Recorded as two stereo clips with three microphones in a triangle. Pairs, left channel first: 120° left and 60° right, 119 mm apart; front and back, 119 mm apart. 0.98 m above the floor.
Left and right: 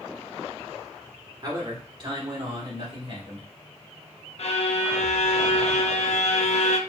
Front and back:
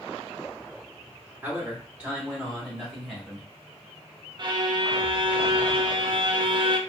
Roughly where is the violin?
Behind left.